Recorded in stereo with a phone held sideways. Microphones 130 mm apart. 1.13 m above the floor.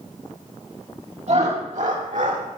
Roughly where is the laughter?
Right.